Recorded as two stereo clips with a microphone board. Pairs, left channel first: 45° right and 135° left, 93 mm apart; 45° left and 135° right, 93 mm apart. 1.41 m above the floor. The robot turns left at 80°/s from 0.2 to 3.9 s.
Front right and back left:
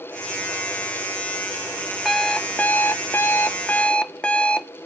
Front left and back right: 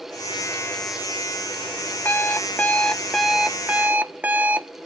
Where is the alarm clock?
45° left, 0.6 m; by 4.7 s 100° right, 0.6 m.